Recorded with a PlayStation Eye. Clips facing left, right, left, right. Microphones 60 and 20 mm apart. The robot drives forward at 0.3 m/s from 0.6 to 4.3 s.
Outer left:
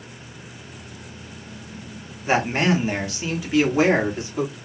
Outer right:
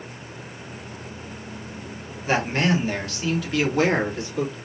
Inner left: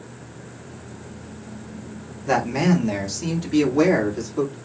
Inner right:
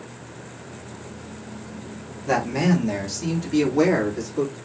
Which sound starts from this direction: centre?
A man speaking, at 2.3 s.